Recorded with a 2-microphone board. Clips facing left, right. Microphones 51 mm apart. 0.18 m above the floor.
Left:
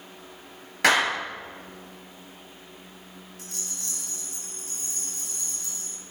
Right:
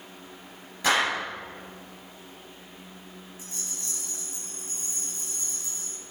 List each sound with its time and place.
0.8 s a clap: 70° left (ahead or behind), 3 m
3.4 s a rattle: 60° left (ahead or behind), 3 m